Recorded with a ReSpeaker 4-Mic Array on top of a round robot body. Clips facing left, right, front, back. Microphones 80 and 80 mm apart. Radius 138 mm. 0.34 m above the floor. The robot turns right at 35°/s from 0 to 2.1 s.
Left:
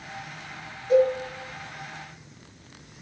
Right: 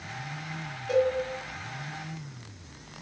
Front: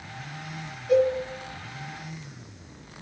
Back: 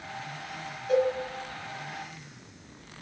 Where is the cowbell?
85° right, 1.8 m; by 1.1 s 75° right, 1.8 m.